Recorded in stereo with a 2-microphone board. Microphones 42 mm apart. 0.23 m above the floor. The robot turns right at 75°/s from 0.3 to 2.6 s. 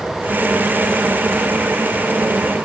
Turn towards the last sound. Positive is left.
No sound to turn to.